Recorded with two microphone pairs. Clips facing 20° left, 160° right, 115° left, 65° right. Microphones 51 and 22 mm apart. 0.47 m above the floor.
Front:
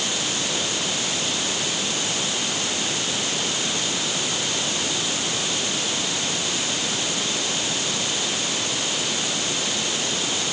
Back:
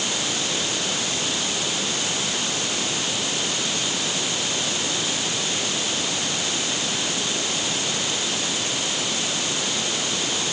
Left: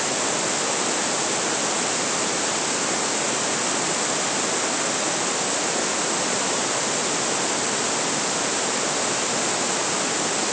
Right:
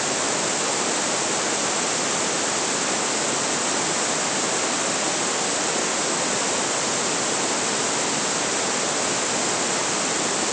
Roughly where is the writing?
No writing in this recording.